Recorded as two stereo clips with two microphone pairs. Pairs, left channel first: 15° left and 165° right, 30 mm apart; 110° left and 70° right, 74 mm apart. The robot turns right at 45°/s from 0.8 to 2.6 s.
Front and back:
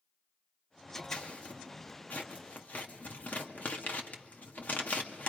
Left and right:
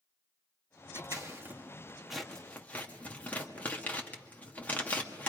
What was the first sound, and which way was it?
Scissors, 40° right.